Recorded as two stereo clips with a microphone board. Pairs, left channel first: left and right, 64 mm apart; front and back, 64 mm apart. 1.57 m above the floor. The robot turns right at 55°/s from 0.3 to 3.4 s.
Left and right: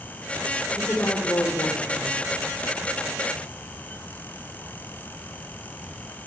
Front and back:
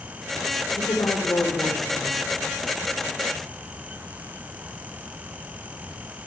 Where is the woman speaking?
10° left, 1.5 m; by 2.2 s 85° left, 1.5 m.